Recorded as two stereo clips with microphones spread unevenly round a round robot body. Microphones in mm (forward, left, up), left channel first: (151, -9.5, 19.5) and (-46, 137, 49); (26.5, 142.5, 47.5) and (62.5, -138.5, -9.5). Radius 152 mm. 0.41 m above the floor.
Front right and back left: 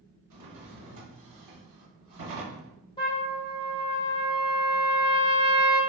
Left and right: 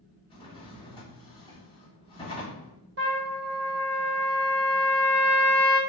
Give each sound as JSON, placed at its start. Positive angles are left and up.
{"t": 0.3, "sound": "a drawer", "azimuth_deg": 175, "distance_m": 0.7}
{"t": 3.0, "sound": "a trumpet", "azimuth_deg": -100, "distance_m": 1.0}